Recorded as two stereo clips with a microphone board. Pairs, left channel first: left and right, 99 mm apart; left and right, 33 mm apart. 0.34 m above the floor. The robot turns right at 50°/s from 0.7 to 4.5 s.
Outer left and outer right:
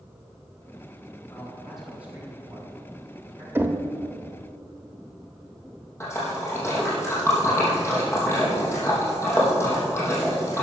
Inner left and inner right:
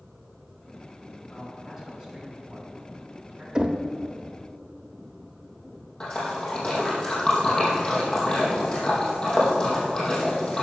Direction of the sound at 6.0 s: 25° left (ahead or behind).